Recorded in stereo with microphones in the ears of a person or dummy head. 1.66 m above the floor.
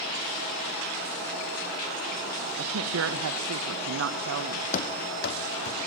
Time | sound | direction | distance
2.6 | a woman speaking | 75° right (ahead or behind) | 1.5 m
4.7 | running footsteps | 45° left (ahead or behind) | 3.5 m